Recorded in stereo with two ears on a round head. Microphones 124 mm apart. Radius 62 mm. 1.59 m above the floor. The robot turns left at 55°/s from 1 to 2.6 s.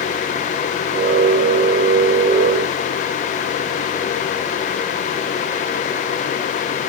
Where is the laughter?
No laughter in this recording.